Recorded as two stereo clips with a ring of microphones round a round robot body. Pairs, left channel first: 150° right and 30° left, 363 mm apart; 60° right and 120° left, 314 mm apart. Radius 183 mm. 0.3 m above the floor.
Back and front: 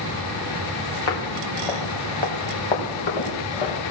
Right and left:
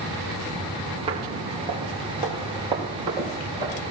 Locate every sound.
1.1 s footsteps: 165° right, 3 m; by 3.8 s 160° right, 5.5 m